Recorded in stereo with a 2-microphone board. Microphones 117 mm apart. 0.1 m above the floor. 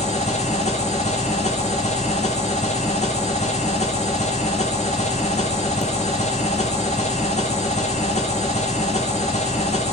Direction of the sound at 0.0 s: 80° left.